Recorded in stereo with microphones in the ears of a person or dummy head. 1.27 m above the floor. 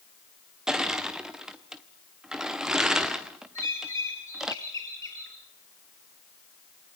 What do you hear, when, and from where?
0.7 s crushing: 5° right (ahead or behind), 0.7 m
3.5 s a bird: 15° left (ahead or behind), 5 m